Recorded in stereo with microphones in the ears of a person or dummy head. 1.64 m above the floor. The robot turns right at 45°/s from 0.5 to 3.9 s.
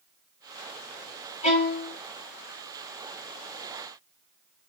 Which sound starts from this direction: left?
A violin, at 1.4 s.